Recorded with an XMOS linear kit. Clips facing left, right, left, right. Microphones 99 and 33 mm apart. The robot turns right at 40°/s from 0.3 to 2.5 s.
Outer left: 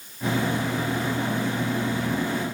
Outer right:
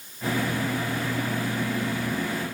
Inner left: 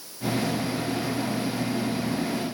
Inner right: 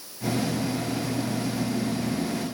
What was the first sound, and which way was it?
Only background noise.